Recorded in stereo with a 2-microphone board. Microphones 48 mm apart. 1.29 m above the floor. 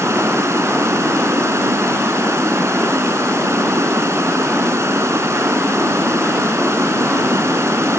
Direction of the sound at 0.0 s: 80° right.